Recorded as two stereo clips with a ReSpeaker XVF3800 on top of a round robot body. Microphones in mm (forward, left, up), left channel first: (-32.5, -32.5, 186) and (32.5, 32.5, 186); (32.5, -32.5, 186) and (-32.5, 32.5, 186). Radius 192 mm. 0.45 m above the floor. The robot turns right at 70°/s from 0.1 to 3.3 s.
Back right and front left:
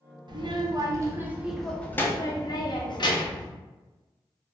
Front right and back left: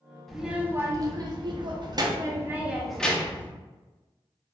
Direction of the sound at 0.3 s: 40° left.